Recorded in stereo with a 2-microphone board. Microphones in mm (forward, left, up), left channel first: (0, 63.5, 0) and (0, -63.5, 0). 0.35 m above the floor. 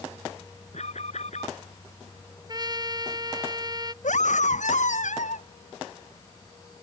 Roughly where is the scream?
Left.